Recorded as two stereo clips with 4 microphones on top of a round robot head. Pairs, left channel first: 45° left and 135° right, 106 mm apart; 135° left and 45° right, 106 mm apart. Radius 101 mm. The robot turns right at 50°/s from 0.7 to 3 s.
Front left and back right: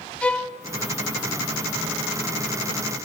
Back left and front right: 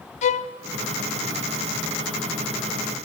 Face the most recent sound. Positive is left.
turn(degrees=-120)